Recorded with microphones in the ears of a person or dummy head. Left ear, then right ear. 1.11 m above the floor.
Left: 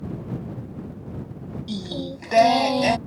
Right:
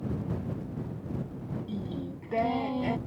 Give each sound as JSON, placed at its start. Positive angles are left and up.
{"t": 1.7, "sound": "singing", "side_deg": 65}